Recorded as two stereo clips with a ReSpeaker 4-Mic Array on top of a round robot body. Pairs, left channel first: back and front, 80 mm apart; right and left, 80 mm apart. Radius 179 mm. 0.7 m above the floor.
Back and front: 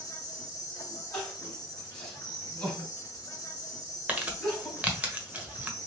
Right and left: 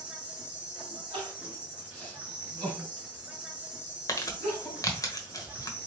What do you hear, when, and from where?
0.0 s an insect: 160° left, 1.9 m
1.1 s crying: 110° left, 2.5 m
4.1 s crumpling: 65° right, 1.3 m